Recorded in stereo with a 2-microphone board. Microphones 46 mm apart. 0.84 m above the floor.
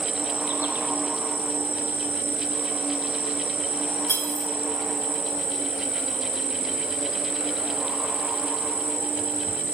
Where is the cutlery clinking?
75° left (ahead or behind), 5 m.